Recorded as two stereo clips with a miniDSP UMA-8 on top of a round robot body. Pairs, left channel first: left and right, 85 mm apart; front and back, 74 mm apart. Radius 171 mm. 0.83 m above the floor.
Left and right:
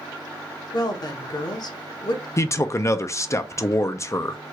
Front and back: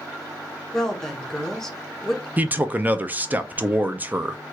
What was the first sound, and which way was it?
A woman speaking, 80° left.